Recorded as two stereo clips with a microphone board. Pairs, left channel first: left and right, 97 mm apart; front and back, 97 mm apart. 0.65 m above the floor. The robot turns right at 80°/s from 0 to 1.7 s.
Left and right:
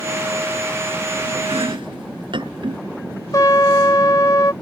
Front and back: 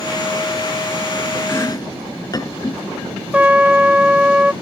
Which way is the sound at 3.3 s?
110° left.